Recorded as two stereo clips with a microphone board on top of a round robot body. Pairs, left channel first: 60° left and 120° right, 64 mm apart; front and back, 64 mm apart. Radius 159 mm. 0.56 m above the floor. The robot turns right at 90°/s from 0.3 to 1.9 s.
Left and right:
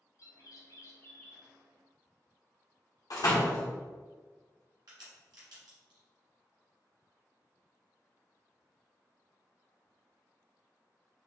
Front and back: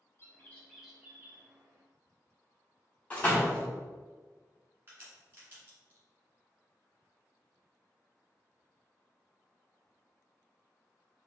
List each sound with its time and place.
0.2 s a bird: 50° left, 1.0 m; by 1.5 s 155° left, 1.0 m
3.1 s a door slam: 70° left, 1.2 m
4.9 s a crack: 125° right, 1.3 m